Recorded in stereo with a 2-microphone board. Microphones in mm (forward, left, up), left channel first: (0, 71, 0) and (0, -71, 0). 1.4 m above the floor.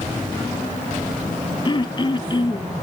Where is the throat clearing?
35° left (ahead or behind), 1.0 m.